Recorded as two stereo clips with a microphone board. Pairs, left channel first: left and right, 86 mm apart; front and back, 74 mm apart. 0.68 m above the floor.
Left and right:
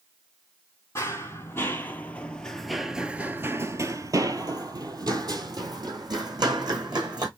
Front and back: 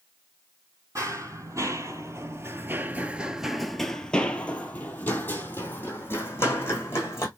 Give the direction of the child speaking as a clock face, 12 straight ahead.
I don't hear a child speaking.